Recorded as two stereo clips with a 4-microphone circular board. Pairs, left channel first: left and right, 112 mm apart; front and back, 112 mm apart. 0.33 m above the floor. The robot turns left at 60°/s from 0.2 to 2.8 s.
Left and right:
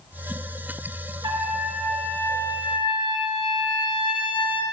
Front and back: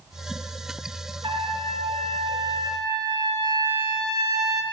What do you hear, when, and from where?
1.2 s a trumpet: 140° right, 2.5 m; by 4.6 s 125° left, 2.5 m